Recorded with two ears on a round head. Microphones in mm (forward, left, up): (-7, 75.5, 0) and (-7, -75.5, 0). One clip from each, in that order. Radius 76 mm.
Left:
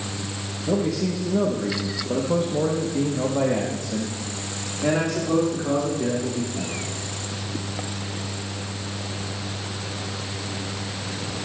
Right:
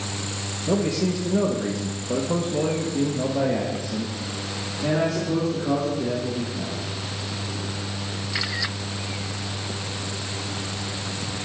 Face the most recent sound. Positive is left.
turn(degrees=50)  # may be behind; listen again after turning